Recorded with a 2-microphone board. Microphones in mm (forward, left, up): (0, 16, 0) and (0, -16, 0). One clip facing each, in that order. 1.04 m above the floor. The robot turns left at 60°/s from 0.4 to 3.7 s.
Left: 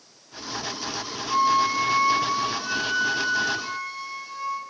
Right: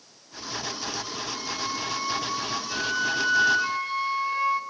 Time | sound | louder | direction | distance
1.3 | a flute | left 14 dB | 110° left | 1.1 m